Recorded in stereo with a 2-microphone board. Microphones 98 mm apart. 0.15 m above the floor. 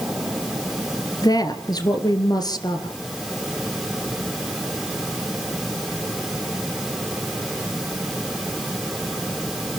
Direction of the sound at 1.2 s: 40° left (ahead or behind).